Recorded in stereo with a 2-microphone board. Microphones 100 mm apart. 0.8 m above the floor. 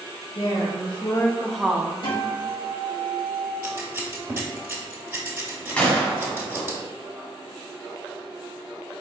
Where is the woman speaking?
65° left (ahead or behind), 1.1 m; by 1.9 s 25° right (ahead or behind), 0.7 m.